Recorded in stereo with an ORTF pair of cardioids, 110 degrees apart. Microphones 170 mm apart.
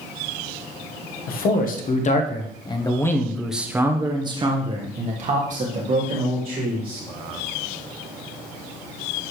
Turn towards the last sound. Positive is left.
turn(degrees=-60)